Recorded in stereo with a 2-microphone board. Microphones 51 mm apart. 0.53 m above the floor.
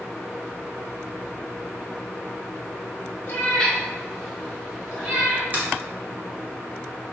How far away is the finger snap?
About 0.8 m.